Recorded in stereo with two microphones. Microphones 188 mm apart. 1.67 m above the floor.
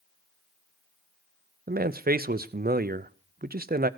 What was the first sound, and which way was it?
A man speaking, 55° right (ahead or behind).